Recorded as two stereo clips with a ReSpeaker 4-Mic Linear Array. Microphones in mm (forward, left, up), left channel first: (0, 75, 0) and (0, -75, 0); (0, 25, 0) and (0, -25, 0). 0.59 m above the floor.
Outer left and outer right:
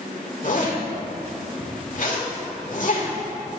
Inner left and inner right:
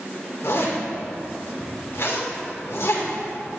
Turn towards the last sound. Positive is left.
turn(degrees=60)  # may be behind; listen again after turning